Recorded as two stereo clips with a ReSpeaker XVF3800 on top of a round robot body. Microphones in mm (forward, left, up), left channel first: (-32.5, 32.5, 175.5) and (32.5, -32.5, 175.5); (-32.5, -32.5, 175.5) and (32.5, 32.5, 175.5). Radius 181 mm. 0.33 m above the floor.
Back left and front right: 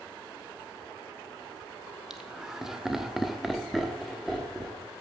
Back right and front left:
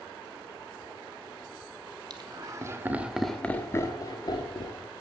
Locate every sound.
2.1 s laughter: 40° left, 1.8 m; by 4.9 s 135° right, 2.5 m